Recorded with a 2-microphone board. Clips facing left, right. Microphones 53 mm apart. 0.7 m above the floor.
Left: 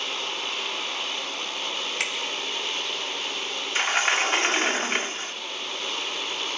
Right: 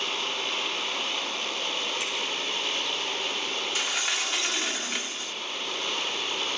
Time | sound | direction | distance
2.0 | a finger snap | 80° left | 3 m
3.8 | a sliding door | 40° left (ahead or behind) | 0.8 m